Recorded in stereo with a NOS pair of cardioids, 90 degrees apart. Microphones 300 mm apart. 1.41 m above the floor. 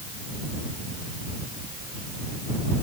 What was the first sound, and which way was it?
Only background noise.